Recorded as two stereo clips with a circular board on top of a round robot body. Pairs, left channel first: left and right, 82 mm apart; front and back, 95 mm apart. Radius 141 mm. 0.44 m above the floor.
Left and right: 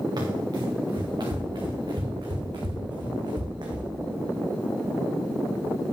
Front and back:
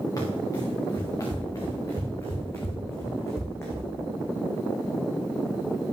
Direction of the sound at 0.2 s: 55° right.